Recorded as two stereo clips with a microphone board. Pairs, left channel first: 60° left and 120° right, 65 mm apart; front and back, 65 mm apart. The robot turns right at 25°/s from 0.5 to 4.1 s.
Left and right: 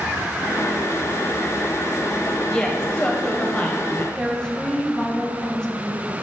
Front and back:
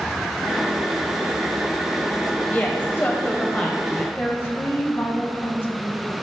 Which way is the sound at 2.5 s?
Straight ahead.